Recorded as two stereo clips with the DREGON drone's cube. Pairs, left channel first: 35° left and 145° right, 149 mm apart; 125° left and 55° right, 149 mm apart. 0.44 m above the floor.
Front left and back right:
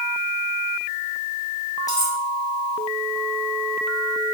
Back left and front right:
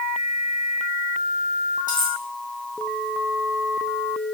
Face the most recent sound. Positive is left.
turn(degrees=100)